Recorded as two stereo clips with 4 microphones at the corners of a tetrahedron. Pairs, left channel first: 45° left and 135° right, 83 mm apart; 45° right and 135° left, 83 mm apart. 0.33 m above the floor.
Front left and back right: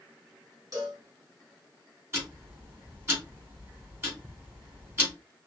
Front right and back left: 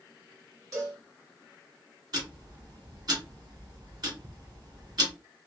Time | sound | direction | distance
0.7 | a cowbell | straight behind | 2.5 m
2.1 | ticking | 165° left | 2 m